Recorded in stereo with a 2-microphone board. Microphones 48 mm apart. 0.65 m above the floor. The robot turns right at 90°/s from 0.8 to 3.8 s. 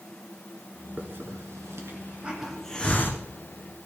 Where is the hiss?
35° right (ahead or behind), 1.6 m; by 3.2 s 55° left (ahead or behind), 1.6 m.